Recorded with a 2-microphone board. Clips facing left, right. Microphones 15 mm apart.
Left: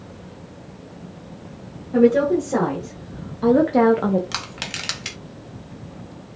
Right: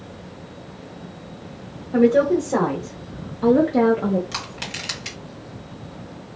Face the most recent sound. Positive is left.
turn(degrees=20)  # may be behind; listen again after turning